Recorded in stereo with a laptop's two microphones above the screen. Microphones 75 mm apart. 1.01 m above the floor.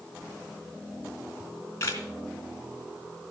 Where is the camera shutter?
40° left (ahead or behind), 3 m.